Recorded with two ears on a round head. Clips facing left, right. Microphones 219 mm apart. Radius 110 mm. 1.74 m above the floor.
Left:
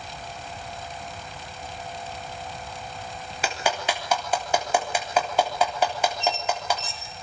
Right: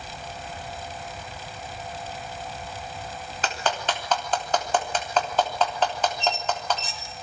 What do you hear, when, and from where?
3.4 s a clap: 10° left (ahead or behind), 3.5 m
6.2 s a squeak: 60° right (ahead or behind), 3 m